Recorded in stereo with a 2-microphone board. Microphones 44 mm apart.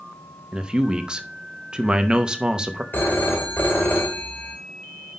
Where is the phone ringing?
50° left (ahead or behind), 1.9 m.